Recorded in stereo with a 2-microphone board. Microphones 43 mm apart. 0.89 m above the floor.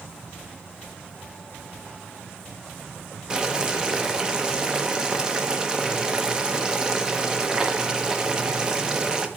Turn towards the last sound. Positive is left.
turn(degrees=-15)  # may be behind; listen again after turning